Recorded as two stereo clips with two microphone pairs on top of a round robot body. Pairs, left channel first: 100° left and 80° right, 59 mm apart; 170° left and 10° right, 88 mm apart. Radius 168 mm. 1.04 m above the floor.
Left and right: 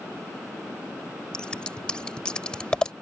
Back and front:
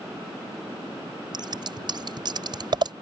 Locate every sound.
1.3 s scissors: 25° left